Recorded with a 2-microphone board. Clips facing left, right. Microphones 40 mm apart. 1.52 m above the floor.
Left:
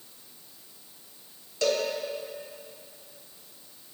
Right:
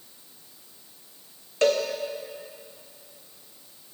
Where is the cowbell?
40° right (ahead or behind), 0.9 m.